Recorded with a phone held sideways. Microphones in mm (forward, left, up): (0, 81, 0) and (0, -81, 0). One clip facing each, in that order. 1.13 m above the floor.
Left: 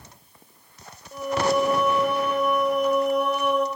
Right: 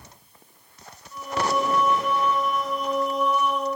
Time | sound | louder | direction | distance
1.1 | singing | left 3 dB | 65° left (ahead or behind) | 4 m